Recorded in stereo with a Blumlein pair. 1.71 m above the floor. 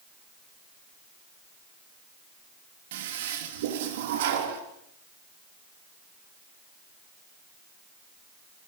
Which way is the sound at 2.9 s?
55° right.